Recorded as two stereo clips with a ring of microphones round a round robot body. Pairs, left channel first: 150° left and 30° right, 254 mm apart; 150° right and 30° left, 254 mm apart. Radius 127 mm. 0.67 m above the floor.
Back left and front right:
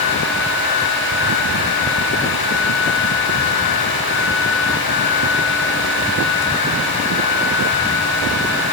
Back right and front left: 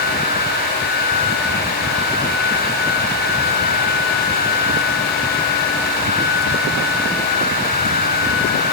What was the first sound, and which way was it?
Only background noise.